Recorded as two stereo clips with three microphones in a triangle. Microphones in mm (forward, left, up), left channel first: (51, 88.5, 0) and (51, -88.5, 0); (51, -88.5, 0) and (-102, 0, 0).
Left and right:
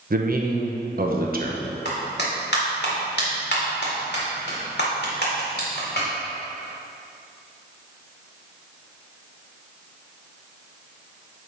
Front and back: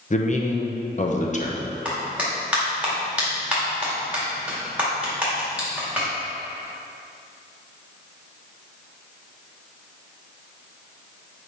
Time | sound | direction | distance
0.1 | a man speaking | 70° right | 1.0 m
1.9 | a clap | 65° left | 2 m